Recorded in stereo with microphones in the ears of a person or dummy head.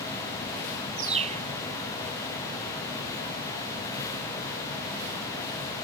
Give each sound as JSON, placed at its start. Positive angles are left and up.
{"t": 1.0, "sound": "a bird", "side_deg": -35}